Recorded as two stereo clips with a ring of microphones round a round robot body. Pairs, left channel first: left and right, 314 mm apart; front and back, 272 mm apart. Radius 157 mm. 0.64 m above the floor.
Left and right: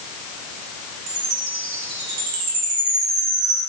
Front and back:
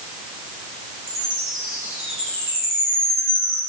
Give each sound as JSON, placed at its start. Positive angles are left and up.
{"t": 1.1, "sound": "a chime", "azimuth_deg": -105, "distance_m": 3.5}